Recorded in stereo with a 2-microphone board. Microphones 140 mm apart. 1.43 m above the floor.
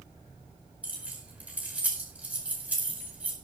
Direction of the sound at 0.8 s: 10° right (ahead or behind).